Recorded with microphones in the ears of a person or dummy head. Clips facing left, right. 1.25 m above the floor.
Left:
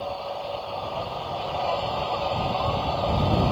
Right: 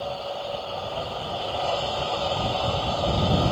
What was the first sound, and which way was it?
An engine running, 15° right (ahead or behind).